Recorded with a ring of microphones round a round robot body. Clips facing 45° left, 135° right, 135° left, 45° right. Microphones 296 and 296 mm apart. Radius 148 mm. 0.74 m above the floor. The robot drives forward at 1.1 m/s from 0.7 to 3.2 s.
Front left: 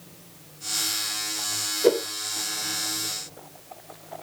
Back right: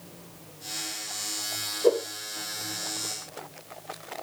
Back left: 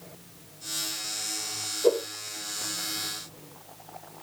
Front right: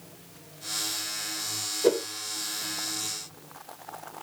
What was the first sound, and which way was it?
A whoosh, straight ahead.